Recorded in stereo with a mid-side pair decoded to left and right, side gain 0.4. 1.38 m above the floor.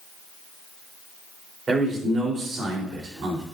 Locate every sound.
1.7 s a man speaking: 50° right, 4 m; by 3.4 s 75° right, 4 m